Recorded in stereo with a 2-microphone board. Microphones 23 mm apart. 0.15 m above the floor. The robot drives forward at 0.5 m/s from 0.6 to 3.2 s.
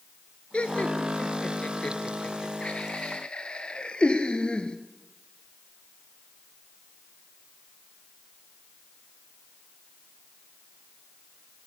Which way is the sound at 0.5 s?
55° left (ahead or behind).